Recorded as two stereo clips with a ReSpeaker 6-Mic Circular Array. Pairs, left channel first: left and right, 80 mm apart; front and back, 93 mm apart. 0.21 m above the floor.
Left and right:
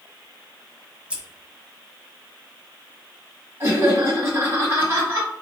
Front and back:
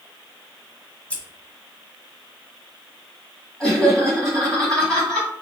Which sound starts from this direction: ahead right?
Scissors, at 1.1 s.